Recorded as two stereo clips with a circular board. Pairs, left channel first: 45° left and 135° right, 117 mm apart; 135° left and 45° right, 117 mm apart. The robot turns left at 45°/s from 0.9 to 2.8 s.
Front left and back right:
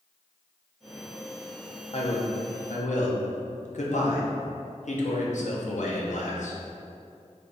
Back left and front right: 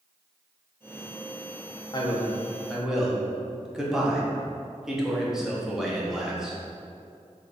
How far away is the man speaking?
About 0.7 m.